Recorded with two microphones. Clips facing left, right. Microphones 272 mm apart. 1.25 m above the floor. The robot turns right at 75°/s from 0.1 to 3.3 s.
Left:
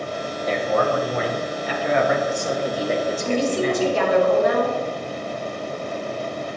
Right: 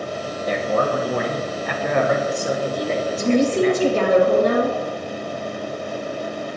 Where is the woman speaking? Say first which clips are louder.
Right 9 dB; 50° right (ahead or behind), 2.5 m; by 4.8 s 40° right (ahead or behind), 2.5 m.